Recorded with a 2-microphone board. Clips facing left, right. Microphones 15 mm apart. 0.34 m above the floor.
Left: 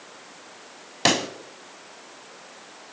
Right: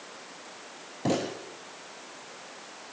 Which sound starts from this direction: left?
A pop, at 1.1 s.